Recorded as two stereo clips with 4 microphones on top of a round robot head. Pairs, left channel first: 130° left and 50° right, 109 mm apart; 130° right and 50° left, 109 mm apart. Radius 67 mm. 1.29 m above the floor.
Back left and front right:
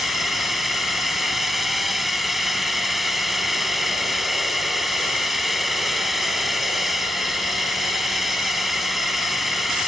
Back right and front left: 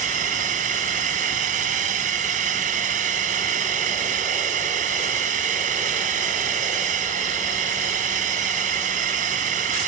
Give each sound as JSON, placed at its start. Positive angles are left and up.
{"t": 0.0, "sound": "a drone", "azimuth_deg": 40}